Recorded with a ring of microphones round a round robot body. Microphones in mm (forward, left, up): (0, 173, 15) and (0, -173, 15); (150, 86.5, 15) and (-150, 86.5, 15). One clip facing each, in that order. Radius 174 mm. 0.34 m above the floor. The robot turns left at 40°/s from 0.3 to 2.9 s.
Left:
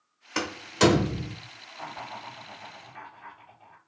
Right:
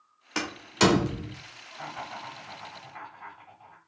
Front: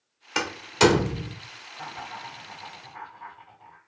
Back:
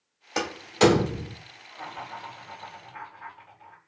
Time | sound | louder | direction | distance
0.3 | a door slam | left 2 dB, back 1 dB | 10° right | 0.8 m
1.7 | laughter | right 1 dB, even | 105° right | 2 m